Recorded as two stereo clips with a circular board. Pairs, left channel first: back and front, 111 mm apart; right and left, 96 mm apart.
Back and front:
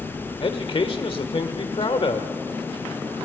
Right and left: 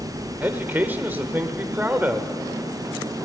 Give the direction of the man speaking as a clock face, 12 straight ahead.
7 o'clock.